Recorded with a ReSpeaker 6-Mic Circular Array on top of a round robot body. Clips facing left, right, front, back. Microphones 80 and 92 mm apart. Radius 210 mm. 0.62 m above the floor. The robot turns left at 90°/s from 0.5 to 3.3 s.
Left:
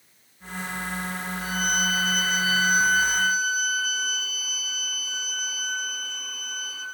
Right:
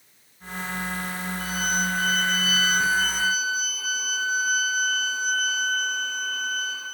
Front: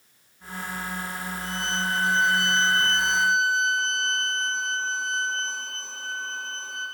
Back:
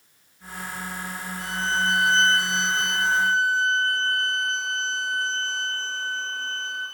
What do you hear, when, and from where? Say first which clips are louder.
1.4 s a violin: even, back 5 dB; 165° left, 5.5 m; by 6.9 s 10° right, 5.5 m